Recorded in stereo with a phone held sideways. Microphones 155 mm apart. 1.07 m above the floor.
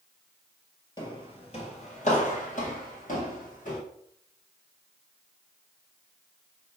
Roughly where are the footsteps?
Left.